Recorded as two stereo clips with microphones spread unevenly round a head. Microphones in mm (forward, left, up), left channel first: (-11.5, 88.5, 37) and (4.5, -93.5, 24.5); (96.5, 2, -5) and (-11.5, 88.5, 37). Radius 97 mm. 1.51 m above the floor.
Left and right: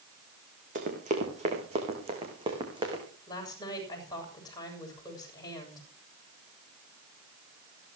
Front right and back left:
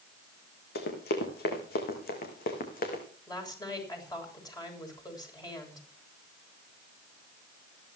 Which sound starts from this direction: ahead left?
A woman speaking, at 3.3 s.